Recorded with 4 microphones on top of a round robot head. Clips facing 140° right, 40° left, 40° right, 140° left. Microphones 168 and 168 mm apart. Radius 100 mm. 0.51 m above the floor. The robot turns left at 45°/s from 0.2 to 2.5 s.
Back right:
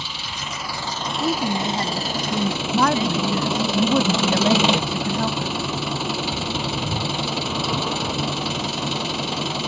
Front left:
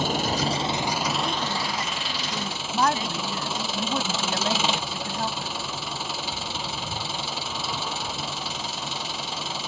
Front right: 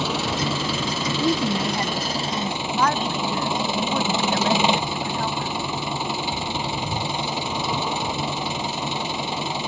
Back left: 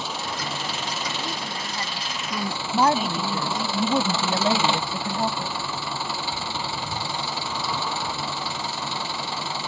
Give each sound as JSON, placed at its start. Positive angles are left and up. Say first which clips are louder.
{"t": 0.0, "sound": "an engine running", "louder": "front left 10 dB, front right 7 dB", "azimuth_deg": -10}
{"t": 1.2, "sound": "a woman speaking", "louder": "back right 6 dB, front right 11 dB", "azimuth_deg": -75}
{"t": 2.7, "sound": "a woman speaking", "louder": "back right 4 dB, back left 3 dB", "azimuth_deg": -145}